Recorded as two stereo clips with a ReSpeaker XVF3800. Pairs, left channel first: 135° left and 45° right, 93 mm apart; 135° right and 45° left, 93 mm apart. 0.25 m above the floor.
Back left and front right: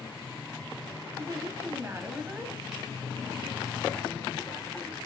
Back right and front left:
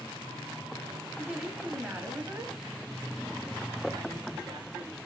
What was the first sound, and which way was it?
A woman speaking, 40° right.